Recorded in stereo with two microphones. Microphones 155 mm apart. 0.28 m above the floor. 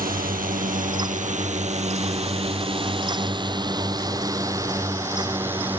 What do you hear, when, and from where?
0.0 s a drone: 70° right (ahead or behind); by 5.8 s 10° right (ahead or behind)